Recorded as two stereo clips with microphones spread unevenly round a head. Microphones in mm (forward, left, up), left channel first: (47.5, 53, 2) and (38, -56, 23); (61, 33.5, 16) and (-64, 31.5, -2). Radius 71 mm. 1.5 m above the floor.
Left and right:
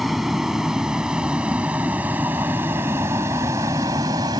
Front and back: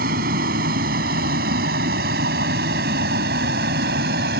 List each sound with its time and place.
0.0 s a vehicle: straight behind; by 4.4 s 160° right